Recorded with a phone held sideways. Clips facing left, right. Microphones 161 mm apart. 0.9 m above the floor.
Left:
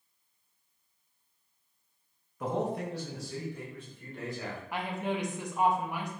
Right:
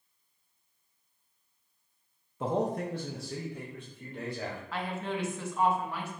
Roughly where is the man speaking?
Right.